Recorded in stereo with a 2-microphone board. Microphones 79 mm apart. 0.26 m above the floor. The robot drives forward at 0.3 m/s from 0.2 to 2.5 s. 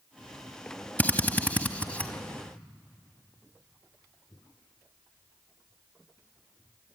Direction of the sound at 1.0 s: 20° left (ahead or behind).